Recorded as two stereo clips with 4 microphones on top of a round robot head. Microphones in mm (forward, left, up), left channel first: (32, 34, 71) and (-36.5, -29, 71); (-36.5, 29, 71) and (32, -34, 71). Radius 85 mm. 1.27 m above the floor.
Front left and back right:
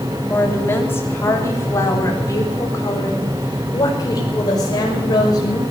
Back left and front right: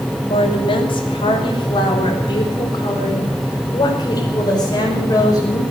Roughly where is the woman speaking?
Behind left.